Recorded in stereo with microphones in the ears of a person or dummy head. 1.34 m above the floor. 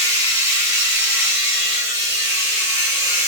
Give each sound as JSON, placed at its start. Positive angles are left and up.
{"t": 0.0, "sound": "a machine running", "side_deg": -15, "distance_m": 1.1}